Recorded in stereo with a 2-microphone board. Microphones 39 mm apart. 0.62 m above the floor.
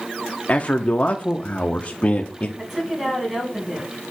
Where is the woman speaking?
10° right (ahead or behind), 4 m.